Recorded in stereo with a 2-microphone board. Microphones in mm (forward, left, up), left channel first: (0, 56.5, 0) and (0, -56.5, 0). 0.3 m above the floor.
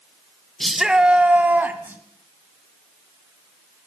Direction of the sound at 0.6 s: 5° left (ahead or behind).